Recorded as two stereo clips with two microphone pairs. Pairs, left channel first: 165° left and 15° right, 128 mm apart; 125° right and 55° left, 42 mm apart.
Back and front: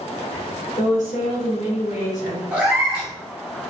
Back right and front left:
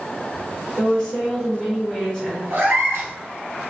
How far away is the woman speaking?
About 1.1 m.